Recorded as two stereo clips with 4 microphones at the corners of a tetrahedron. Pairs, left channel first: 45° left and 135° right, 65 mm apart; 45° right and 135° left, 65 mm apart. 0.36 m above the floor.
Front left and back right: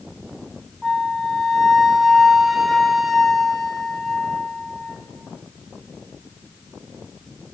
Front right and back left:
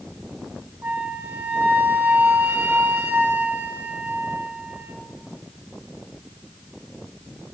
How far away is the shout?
I don't hear a shout.